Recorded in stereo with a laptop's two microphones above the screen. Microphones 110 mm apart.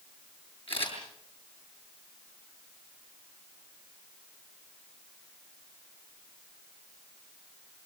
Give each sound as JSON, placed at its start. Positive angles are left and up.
{"t": 0.7, "sound": "a camera shutter", "side_deg": 55, "distance_m": 8.0}